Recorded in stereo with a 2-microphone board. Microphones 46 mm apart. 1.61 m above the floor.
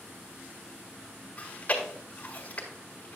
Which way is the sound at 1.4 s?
35° left (ahead or behind).